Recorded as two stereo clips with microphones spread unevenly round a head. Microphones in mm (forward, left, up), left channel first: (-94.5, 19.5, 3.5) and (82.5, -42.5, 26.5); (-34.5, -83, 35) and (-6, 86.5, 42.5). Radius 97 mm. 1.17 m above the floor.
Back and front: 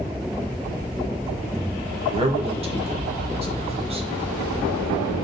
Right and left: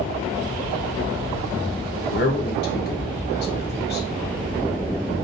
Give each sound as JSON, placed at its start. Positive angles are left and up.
{"t": 2.1, "sound": "a man speaking", "azimuth_deg": -80, "distance_m": 0.9}